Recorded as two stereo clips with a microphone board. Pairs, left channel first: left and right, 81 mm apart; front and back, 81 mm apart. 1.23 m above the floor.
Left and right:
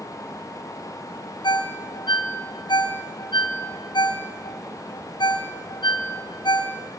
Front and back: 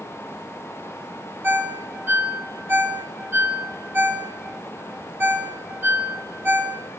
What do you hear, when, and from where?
1.4 s a ringtone: 115° left, 0.6 m